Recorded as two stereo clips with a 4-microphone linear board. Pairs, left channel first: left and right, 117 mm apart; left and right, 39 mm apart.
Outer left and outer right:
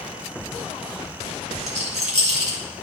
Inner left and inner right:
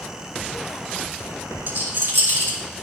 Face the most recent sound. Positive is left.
turn(degrees=-70)  # may be behind; listen again after turning